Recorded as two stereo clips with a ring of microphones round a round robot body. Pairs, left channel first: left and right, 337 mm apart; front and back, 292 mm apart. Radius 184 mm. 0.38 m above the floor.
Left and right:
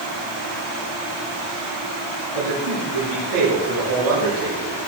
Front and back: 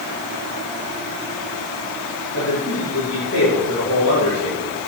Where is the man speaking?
60° right, 5.5 m.